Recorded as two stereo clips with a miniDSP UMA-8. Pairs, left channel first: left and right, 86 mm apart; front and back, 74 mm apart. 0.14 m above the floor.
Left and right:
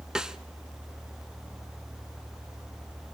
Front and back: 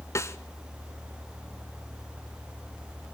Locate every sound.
0.1 s a snare drum: 10° right, 1.4 m